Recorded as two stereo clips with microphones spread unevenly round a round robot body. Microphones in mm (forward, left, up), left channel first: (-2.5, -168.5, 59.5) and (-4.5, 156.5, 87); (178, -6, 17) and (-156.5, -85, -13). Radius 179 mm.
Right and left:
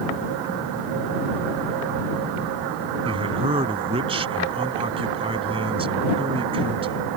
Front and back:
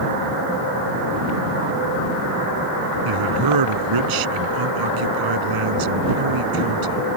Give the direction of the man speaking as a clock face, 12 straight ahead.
7 o'clock.